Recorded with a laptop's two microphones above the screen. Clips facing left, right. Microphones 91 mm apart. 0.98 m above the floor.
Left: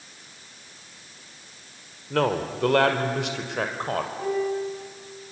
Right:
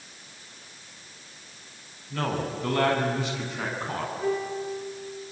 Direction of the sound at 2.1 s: 75° left (ahead or behind).